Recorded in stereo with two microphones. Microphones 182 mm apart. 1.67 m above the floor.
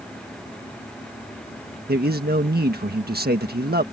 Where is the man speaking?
60° right (ahead or behind).